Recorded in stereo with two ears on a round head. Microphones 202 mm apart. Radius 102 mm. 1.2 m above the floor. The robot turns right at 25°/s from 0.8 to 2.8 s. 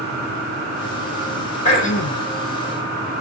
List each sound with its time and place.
1.6 s throat clearing: 30° left (ahead or behind), 1.7 m; by 2.2 s 45° left (ahead or behind), 1.7 m